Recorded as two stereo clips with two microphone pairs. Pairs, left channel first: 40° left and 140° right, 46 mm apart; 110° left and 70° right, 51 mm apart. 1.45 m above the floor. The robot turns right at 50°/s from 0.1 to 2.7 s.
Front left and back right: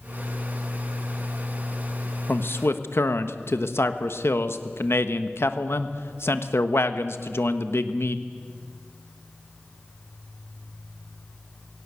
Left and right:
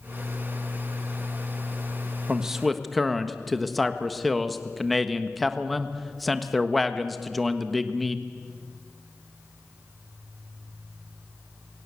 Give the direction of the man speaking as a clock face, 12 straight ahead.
12 o'clock.